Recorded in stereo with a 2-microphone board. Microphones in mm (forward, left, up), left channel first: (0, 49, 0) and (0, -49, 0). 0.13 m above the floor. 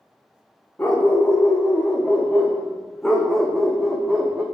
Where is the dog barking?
20° left (ahead or behind), 3.5 m; by 4.4 s 10° right (ahead or behind), 2 m.